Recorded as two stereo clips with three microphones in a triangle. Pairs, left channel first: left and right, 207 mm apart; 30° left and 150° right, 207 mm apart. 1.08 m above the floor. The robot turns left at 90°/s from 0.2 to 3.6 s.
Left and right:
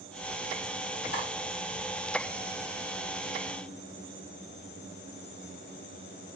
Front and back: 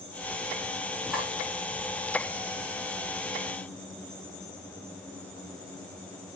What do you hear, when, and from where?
1.1 s cutlery clinking: 125° left, 2.5 m; by 1.3 s 105° left, 2.5 m